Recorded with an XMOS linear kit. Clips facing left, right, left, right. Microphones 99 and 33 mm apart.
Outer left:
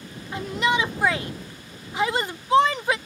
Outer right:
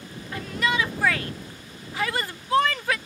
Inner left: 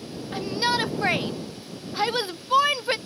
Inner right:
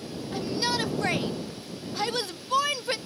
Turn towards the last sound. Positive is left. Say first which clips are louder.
# outer left 2 dB, inner left 4 dB
turn(degrees=20)  # may be behind; listen again after turning